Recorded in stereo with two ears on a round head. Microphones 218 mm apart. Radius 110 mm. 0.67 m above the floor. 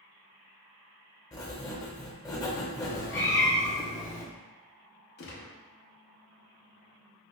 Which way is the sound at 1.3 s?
15° left (ahead or behind).